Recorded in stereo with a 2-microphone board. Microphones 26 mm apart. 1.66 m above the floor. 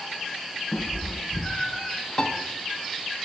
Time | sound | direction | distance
0.7 | a cat meowing | 35° left (ahead or behind) | 3 m
2.2 | a piano | 40° left (ahead or behind) | 1.3 m